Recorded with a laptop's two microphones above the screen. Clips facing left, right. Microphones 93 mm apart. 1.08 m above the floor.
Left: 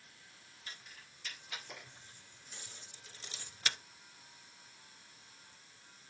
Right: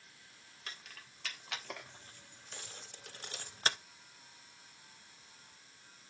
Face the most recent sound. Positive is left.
turn(degrees=-35)  # may be behind; listen again after turning